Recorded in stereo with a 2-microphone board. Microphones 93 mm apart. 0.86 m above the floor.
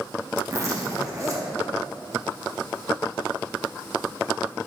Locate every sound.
0.5 s a zipper: 35° right (ahead or behind), 1.0 m